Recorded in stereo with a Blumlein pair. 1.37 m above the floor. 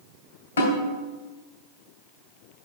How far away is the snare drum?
About 2.5 m.